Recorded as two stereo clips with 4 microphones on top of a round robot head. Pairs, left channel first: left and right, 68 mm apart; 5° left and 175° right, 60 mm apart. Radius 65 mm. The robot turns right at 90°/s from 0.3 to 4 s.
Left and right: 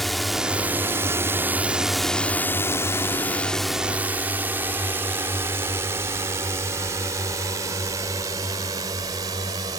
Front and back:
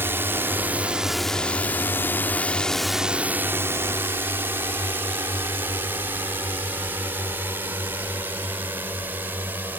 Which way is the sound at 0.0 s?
175° left.